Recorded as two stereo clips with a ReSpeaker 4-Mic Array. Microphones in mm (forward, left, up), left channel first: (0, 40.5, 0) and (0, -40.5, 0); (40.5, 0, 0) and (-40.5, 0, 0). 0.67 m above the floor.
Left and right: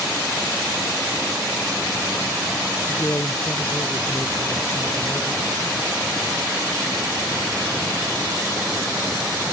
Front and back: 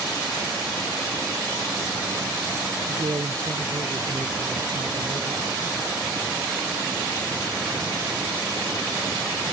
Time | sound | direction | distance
2.9 | a man speaking | 150° left | ?